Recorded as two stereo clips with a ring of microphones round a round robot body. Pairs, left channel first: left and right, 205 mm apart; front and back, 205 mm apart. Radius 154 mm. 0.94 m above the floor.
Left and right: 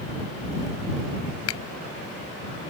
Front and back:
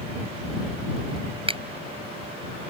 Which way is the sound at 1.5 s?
115° left.